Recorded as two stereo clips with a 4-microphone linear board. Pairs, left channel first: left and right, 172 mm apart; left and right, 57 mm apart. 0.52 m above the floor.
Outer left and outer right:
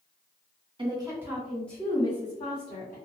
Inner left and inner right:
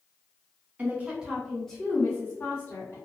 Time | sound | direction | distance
0.8 | a woman speaking | 30° right (ahead or behind) | 1.2 m